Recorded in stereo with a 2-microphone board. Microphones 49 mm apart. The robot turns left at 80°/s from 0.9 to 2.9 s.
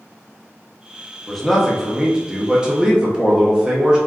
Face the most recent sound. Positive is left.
turn(degrees=-15)  # may be behind; listen again after turning